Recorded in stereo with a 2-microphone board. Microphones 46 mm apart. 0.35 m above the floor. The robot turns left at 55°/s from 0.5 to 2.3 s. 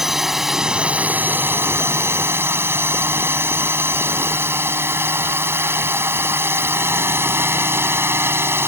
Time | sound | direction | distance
0.0 | a drone | 5° right | ?